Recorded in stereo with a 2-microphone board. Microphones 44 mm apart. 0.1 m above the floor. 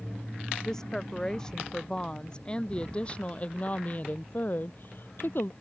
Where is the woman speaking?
15° left (ahead or behind); by 5.5 s 60° left (ahead or behind).